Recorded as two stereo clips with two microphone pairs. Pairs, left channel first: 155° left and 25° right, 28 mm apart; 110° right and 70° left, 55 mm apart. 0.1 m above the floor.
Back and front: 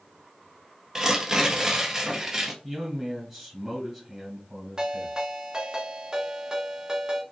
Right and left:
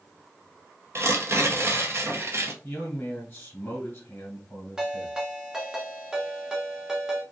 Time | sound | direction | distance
0.9 | tearing paper | 45° left | 0.6 m
2.6 | a man speaking | 100° right | 1.4 m
4.8 | a ringtone | 10° left | 0.8 m